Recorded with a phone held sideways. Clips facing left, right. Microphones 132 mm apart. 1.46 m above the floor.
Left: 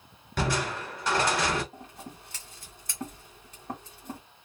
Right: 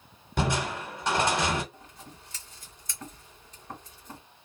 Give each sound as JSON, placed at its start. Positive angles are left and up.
{"t": 0.4, "sound": "crushing", "side_deg": -20, "distance_m": 1.1}
{"t": 1.7, "sound": "scissors", "side_deg": 60, "distance_m": 1.7}